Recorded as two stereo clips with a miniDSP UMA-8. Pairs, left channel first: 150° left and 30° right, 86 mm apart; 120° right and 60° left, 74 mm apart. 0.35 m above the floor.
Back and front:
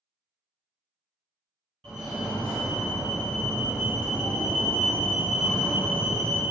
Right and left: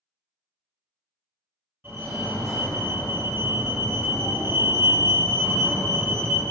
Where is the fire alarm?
55° left, 1.9 m.